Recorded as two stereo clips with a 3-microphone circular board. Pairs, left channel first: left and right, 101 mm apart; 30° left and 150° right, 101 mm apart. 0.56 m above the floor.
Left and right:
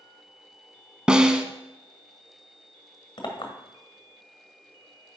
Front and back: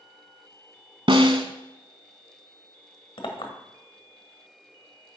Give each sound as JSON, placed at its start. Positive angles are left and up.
{"t": 1.1, "sound": "a snare drum", "azimuth_deg": -170, "distance_m": 0.8}
{"t": 3.2, "sound": "a clink", "azimuth_deg": 55, "distance_m": 1.3}